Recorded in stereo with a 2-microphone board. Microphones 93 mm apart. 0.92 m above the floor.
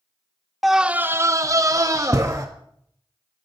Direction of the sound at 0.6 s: Centre (ahead or behind).